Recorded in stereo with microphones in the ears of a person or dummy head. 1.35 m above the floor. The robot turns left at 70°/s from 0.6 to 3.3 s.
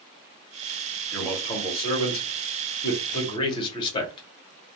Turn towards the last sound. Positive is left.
turn(degrees=25)  # may be behind; listen again after turning